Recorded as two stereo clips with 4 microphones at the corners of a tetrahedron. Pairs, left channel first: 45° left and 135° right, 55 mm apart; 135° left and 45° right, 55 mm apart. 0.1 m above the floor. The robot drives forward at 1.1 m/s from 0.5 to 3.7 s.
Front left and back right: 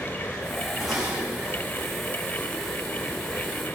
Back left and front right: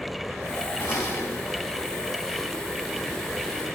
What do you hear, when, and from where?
0.8 s dishes clattering: 140° left, 5.5 m; by 1.6 s 145° left, 6.5 m